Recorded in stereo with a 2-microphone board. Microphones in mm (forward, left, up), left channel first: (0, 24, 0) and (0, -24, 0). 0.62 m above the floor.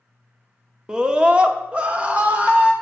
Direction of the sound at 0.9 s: 15° right (ahead or behind).